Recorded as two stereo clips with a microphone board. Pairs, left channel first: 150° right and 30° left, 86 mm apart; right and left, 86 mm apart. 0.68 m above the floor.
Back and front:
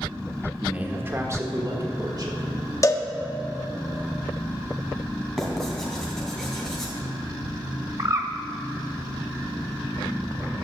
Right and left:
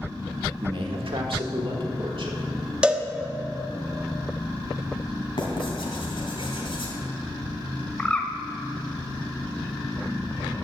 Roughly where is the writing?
Ahead right.